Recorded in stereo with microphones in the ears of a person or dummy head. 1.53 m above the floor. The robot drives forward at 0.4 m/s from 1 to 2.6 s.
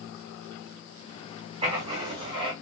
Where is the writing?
30° right (ahead or behind), 1.2 m; by 2.5 s 25° right (ahead or behind), 1.6 m.